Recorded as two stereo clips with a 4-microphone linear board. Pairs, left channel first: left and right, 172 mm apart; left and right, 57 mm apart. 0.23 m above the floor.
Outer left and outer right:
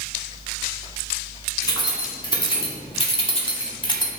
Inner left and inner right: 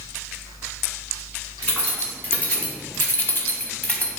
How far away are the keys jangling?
About 1.4 m.